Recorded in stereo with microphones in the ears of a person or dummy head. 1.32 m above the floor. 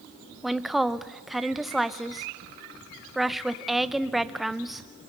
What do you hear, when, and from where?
0.4 s a woman speaking: centre (ahead or behind), 0.7 m